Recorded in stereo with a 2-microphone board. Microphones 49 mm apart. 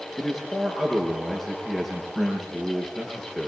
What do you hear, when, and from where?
0.2 s a man speaking: 5° left (ahead or behind), 6 m